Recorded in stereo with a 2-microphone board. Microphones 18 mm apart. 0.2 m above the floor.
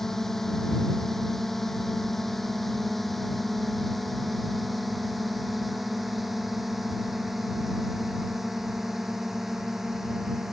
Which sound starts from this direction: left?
A drone, at 0.0 s.